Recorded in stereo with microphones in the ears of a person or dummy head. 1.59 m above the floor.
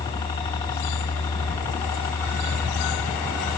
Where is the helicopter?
20° left (ahead or behind); by 3.6 s 15° left (ahead or behind).